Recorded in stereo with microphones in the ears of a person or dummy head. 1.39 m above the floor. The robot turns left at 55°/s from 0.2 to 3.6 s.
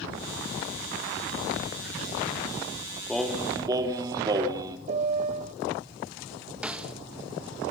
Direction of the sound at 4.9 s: 40° right (ahead or behind).